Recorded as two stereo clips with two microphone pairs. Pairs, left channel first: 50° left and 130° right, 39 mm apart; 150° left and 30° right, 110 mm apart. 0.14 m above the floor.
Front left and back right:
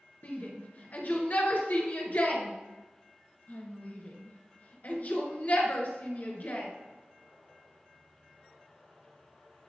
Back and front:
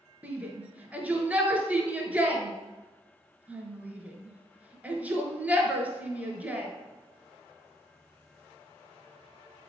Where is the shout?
40° left, 1.6 m.